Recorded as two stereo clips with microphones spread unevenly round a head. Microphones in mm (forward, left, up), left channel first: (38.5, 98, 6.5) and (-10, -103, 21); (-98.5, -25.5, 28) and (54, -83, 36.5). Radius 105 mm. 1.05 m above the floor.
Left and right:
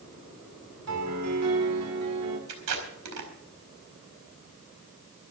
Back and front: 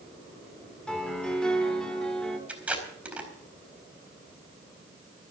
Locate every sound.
0.9 s a piano: 115° right, 3.5 m
2.5 s tape being pulled: 105° right, 4.5 m